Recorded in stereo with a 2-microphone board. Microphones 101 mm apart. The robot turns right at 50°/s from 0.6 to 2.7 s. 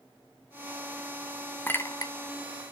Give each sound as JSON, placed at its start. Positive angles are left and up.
{"t": 1.7, "sound": "a clink", "side_deg": 20, "distance_m": 0.8}